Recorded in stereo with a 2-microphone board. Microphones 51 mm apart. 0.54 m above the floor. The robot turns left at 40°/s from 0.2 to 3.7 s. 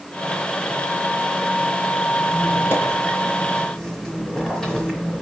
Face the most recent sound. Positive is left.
turn(degrees=15)